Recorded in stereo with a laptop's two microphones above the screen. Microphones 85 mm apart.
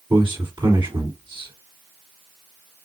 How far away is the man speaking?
About 3.5 m.